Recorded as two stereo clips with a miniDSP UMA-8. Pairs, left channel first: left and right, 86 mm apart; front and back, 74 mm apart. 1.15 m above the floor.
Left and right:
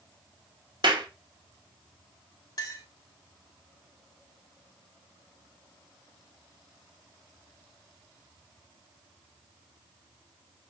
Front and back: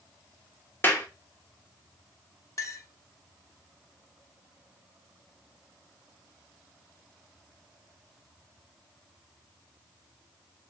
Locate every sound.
0.8 s a clap: 60° right, 0.8 m
2.6 s a clink: 45° left, 0.8 m